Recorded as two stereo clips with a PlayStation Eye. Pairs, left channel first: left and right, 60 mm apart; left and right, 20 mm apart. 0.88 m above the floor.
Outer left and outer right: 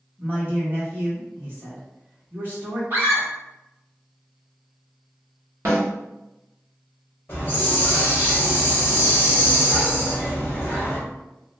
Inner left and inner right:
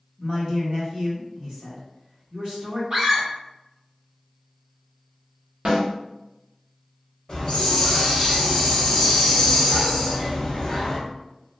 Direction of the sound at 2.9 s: 40° right (ahead or behind).